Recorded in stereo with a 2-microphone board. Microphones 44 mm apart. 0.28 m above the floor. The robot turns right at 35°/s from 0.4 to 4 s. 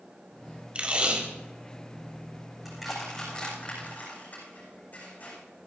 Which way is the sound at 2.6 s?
5° right (ahead or behind).